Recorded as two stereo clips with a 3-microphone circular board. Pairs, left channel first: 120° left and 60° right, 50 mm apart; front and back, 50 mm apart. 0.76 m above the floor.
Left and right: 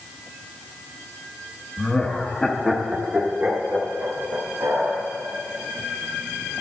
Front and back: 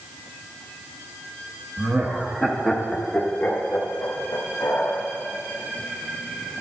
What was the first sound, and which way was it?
Laughter, 165° left.